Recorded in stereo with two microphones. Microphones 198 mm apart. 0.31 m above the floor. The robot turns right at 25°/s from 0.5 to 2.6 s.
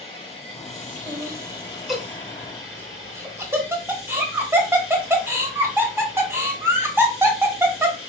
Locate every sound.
0.0 s running water: 30° left, 1.5 m; by 8.1 s 80° left, 1.5 m
1.1 s laughter: 15° left (ahead or behind), 1.2 m; by 8.0 s 10° right (ahead or behind), 1.2 m